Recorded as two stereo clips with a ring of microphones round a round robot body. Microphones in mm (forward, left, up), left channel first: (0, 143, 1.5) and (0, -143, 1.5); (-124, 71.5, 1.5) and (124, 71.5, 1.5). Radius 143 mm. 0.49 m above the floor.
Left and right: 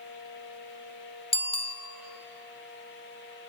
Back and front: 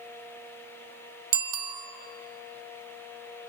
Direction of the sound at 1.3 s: 20° left.